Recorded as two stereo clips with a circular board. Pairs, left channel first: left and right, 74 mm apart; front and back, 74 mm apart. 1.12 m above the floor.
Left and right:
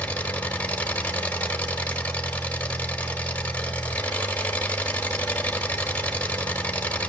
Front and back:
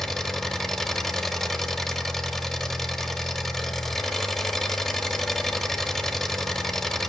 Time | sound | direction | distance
0.0 | an engine running | 75° left | 0.9 m